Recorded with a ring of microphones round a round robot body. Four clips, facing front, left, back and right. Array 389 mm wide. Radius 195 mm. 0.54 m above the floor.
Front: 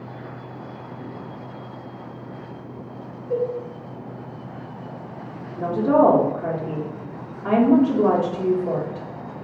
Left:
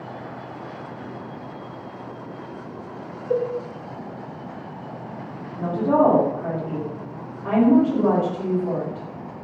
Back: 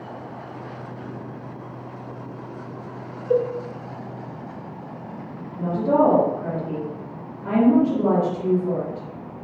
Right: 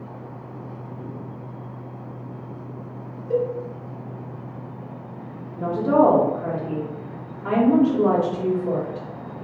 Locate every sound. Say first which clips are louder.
3.3 s a cowbell: even, back 3 dB; 160° left, 0.6 m
5.6 s a woman speaking: right 1 dB, front 2 dB; 15° right, 1.0 m